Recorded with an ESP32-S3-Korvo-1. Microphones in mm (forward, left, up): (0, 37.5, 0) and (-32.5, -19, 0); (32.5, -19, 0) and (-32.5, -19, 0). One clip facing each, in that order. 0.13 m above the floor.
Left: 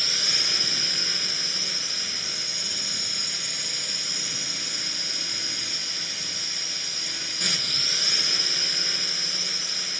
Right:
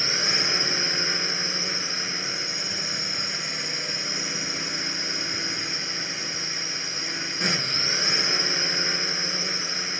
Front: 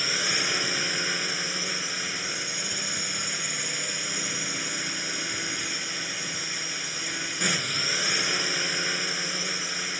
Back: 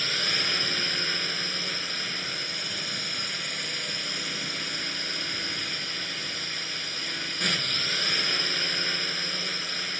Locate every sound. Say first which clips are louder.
0.0 s a drone: right 5 dB, front 1 dB; 75° right